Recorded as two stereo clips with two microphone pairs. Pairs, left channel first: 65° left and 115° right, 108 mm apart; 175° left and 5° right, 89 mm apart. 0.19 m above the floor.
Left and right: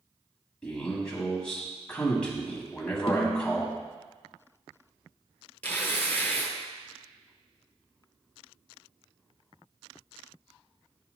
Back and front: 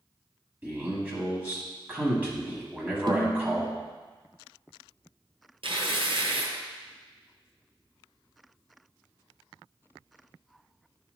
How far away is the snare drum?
About 0.9 m.